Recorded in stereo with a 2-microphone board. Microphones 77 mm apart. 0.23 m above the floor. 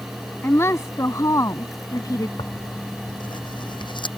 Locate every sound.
0.4 s a woman speaking: 35° left (ahead or behind); by 2.3 s 50° left (ahead or behind)
2.4 s tearing paper: 80° left